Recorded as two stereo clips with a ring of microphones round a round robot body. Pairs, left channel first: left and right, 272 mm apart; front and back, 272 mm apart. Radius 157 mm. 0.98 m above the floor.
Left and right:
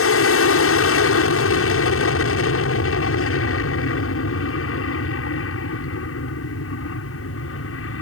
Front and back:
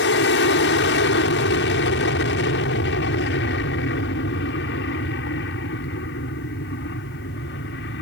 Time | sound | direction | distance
0.0 | an aircraft | 55° left | ?